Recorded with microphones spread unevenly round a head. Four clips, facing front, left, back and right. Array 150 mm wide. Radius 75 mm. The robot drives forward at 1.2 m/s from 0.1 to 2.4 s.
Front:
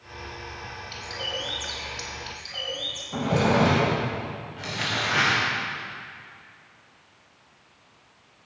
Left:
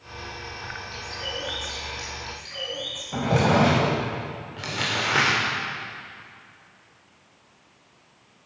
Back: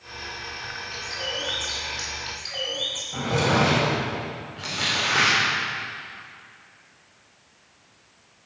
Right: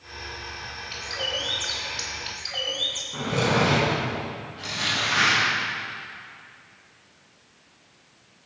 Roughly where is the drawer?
Left.